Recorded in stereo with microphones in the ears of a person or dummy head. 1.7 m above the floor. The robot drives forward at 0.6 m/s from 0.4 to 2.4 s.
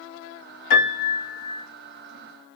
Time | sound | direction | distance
0.7 | a piano | 65° left (ahead or behind) | 1.9 m